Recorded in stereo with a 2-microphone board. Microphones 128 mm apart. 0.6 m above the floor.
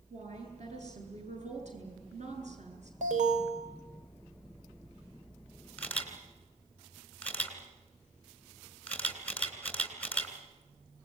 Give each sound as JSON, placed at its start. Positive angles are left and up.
{"t": 0.1, "sound": "a woman speaking", "side_deg": -65, "distance_m": 9.5}
{"t": 3.0, "sound": "an alarm", "side_deg": -65, "distance_m": 3.5}
{"t": 5.8, "sound": "a camera shutter", "side_deg": 10, "distance_m": 3.0}